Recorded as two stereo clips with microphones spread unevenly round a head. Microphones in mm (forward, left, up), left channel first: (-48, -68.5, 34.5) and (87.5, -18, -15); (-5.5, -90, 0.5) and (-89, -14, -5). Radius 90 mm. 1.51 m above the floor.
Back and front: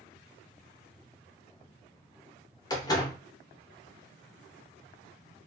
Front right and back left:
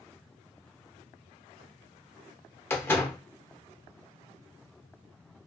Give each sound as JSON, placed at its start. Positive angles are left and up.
{"t": 2.7, "sound": "a door slam", "azimuth_deg": -110, "distance_m": 0.9}